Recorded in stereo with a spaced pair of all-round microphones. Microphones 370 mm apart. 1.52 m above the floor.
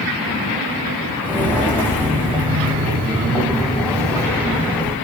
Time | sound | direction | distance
1.2 | footsteps | 5° left (ahead or behind) | 5 m